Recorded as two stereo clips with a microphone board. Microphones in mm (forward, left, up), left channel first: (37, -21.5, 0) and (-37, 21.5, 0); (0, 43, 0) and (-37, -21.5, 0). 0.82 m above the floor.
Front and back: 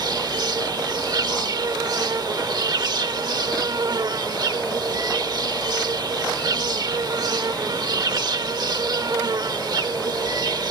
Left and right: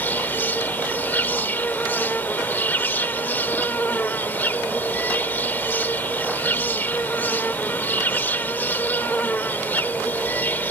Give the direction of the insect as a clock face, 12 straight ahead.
8 o'clock.